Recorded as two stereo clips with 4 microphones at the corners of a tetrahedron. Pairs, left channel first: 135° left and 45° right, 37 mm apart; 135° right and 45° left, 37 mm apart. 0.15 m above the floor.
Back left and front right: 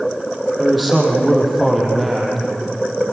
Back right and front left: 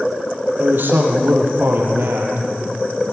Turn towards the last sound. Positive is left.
turn(degrees=45)